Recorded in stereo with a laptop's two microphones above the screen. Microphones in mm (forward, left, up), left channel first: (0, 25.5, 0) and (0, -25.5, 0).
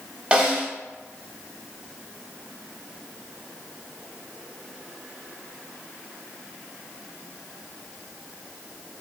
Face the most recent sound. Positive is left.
turn(degrees=-20)  # may be behind; listen again after turning